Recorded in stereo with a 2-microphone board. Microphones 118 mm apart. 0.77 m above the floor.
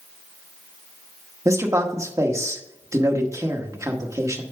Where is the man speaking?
25° right (ahead or behind), 1.3 m.